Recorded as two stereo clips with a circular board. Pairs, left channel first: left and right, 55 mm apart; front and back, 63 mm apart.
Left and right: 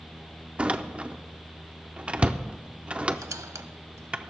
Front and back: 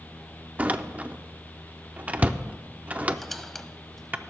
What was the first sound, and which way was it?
A door slam, 140° right.